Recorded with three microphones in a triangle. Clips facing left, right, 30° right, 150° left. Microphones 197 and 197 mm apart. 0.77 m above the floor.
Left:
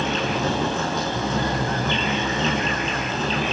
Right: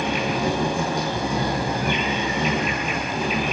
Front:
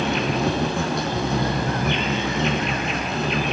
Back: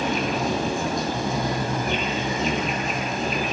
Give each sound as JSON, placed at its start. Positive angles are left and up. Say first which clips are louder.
{"t": 0.0, "sound": "an insect", "louder": "right 1 dB, front 2 dB", "azimuth_deg": -10, "distance_m": 8.0}